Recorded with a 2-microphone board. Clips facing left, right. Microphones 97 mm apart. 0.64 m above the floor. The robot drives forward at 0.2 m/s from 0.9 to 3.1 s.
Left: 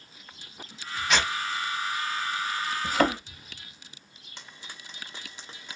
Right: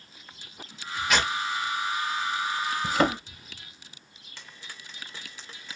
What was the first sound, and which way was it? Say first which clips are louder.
Tearing paper: right 1 dB; centre (ahead or behind).